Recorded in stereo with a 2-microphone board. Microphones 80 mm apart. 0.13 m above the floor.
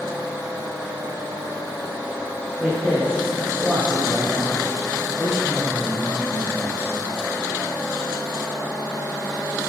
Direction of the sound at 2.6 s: 15° right (ahead or behind).